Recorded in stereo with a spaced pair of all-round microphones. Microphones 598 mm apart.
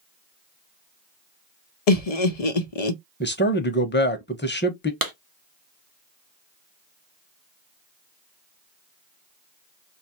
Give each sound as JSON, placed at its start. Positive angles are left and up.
{"t": 1.9, "sound": "laughter", "side_deg": 75, "distance_m": 0.6}
{"t": 3.2, "sound": "a man speaking", "side_deg": 20, "distance_m": 0.7}
{"t": 5.0, "sound": "a clap", "side_deg": -35, "distance_m": 0.8}